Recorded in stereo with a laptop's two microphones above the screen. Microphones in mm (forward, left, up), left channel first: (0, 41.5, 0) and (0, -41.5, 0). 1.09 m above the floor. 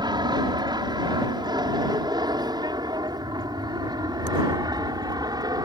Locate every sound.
0.0 s an aircraft: 55° right (ahead or behind); by 5.7 s 50° right (ahead or behind)